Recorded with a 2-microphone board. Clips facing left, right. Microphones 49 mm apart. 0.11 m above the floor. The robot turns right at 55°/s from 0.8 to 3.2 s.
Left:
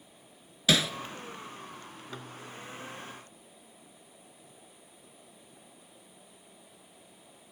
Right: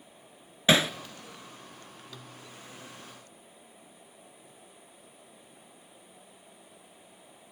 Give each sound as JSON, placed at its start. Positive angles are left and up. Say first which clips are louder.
{"t": 0.7, "sound": "hammering", "louder": "right 3 dB", "side_deg": -30, "distance_m": 0.5}